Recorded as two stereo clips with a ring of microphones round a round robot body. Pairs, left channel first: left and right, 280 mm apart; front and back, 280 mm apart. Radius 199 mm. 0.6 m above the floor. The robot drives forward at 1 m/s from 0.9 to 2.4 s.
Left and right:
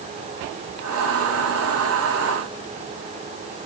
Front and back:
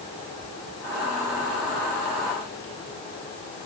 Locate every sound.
Only background noise.